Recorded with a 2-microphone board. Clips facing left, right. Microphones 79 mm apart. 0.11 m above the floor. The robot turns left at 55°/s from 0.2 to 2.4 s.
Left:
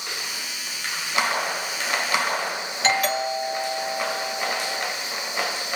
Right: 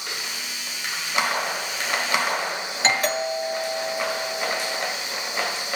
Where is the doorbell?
30° right (ahead or behind), 1.6 m.